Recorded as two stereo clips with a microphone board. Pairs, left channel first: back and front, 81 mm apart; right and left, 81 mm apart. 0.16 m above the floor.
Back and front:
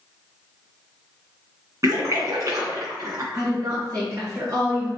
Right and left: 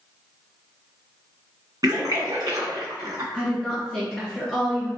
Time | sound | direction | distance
1.8 | a splash | 50° left | 1.9 m
3.3 | a woman speaking | 5° right | 1.9 m